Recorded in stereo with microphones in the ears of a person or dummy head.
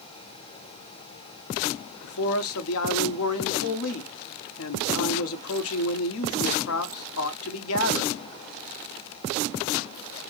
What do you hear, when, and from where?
2.0 s a man speaking: 70° left (ahead or behind), 0.8 m